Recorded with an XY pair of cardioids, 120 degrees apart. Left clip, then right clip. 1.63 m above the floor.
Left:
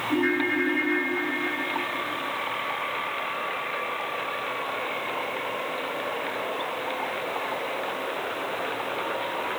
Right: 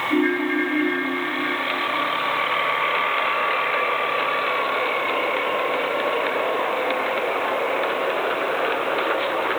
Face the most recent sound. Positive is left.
turn(degrees=25)